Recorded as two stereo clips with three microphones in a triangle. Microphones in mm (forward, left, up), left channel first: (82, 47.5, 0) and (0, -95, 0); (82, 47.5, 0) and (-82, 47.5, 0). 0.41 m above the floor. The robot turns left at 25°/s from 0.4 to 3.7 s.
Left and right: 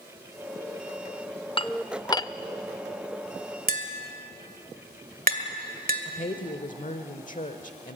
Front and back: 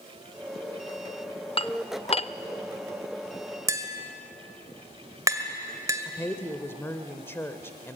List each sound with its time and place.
1.6 s dishes clattering: 25° left, 0.5 m; by 2.3 s 5° left, 0.5 m
3.7 s tapping: 115° right, 1.9 m
6.0 s a woman speaking: 75° left, 1.2 m